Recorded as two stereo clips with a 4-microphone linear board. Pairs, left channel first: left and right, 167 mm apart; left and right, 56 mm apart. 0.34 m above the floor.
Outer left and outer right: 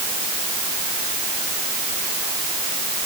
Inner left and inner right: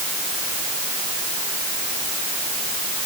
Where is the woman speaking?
No woman speaking in this recording.